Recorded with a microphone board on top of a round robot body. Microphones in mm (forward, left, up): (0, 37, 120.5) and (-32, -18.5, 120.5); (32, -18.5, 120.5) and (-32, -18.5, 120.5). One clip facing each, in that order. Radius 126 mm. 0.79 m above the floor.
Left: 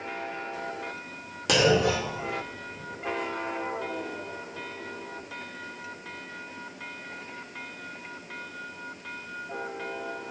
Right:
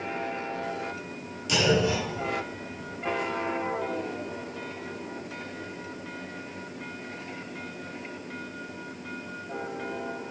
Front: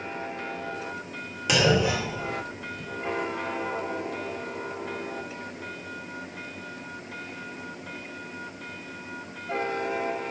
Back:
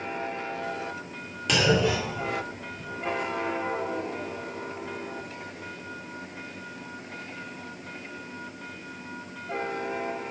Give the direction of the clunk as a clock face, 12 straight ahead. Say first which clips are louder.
Left 2 dB, front 1 dB; 9 o'clock.